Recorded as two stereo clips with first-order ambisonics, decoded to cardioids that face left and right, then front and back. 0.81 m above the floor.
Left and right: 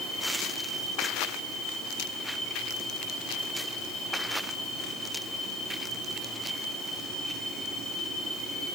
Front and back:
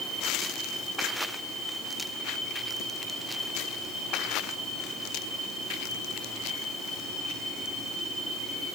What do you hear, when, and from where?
Only background noise.